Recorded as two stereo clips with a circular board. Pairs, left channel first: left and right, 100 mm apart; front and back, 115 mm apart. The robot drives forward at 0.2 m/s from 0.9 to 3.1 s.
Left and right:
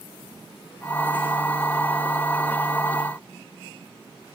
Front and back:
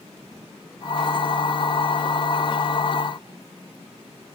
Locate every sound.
Only background noise.